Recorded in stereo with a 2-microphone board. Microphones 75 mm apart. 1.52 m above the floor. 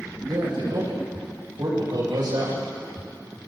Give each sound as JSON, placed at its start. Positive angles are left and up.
{"t": 0.3, "sound": "a man speaking", "side_deg": -70, "distance_m": 9.5}